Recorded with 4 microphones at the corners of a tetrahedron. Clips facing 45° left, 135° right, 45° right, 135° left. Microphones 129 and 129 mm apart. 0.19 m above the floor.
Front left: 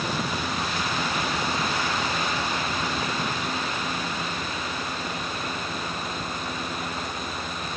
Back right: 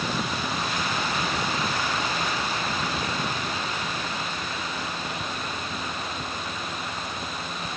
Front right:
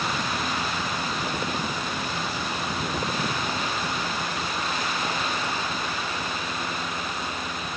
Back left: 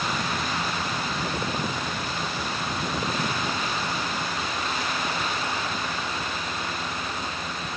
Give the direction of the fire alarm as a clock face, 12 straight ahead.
I don't hear a fire alarm.